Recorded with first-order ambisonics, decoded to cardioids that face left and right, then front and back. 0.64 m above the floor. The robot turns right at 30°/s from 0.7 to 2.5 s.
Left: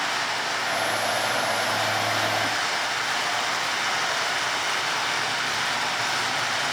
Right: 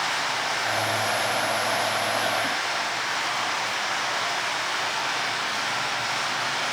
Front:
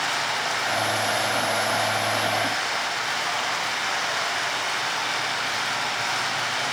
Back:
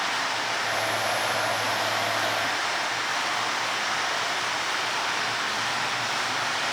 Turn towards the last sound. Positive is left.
turn(degrees=50)